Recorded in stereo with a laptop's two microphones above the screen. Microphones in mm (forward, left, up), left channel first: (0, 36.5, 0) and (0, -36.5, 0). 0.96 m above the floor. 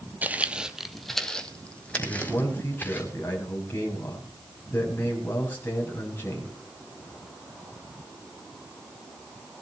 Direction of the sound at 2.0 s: 25° left (ahead or behind).